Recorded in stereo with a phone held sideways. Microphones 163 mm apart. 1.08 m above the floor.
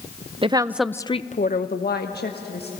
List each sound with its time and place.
0.4 s a woman speaking: 35° right (ahead or behind), 0.8 m; by 2.7 s 75° left (ahead or behind), 1.9 m